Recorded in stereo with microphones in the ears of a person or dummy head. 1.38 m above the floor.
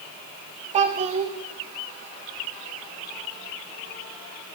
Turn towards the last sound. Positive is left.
turn(degrees=-25)  # may be behind; listen again after turning